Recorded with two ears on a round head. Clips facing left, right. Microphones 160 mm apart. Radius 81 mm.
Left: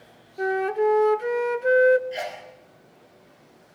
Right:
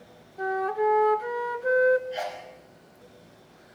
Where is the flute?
30° left (ahead or behind), 0.6 m.